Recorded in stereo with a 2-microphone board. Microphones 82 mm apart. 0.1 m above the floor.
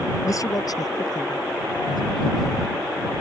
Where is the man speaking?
40° left (ahead or behind); by 2.5 s 65° left (ahead or behind).